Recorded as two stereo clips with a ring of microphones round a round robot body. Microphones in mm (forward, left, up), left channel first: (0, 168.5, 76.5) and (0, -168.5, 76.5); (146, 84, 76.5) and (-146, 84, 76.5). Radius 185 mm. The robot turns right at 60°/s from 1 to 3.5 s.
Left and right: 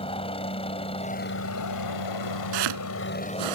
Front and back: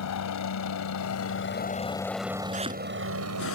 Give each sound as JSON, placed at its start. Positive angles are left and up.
{"t": 0.0, "sound": "a helicopter", "azimuth_deg": 15}
{"t": 2.5, "sound": "chopping", "azimuth_deg": -110}